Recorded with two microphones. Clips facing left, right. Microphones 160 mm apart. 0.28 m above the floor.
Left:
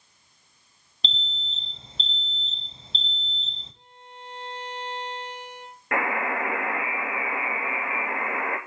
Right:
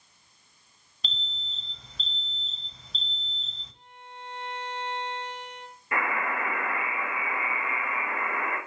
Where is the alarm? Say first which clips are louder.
Left 5 dB; 25° left (ahead or behind), 0.9 m.